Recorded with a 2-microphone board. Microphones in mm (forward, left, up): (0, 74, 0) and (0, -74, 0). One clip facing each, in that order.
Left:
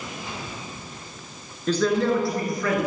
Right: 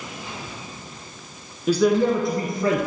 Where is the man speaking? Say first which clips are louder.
Right 3 dB; 10° right (ahead or behind), 1.4 m; by 2.8 s 30° right (ahead or behind), 1.8 m.